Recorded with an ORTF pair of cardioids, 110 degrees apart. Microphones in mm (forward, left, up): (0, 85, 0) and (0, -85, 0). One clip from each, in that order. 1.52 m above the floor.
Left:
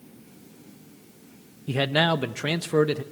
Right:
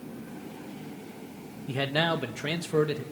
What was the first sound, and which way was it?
A man speaking, 25° left.